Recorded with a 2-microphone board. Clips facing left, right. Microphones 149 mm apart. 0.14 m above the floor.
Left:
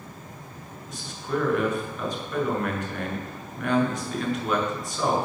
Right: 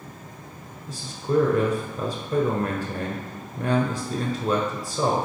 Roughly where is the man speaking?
Right.